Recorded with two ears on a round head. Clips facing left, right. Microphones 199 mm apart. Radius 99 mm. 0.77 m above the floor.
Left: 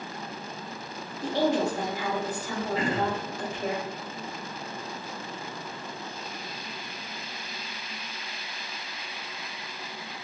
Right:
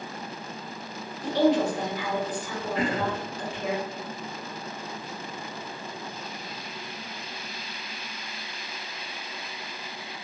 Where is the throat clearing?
40° right (ahead or behind), 0.9 m.